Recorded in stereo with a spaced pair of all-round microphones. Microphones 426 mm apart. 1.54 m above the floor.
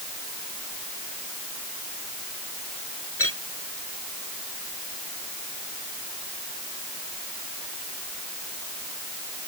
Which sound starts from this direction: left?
A clink, at 3.2 s.